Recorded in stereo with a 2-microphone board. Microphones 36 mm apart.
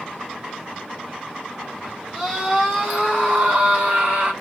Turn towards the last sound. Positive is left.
turn(degrees=-60)  # may be behind; listen again after turning